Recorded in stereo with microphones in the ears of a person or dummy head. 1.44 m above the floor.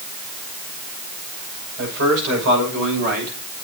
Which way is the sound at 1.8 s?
65° right (ahead or behind).